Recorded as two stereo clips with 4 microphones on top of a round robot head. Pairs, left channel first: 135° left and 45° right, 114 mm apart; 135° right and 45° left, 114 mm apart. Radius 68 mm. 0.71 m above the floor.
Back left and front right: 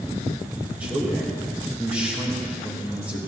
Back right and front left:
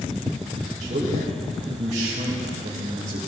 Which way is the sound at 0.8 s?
30° left.